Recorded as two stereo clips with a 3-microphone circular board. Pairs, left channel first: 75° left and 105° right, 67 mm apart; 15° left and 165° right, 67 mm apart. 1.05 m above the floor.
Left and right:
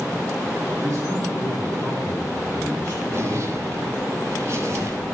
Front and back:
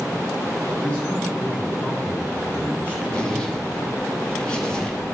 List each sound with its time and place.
0.8 s a man speaking: 60° right, 7.5 m; by 3.0 s 45° right, 5 m
3.1 s a zipper: 60° right, 2.5 m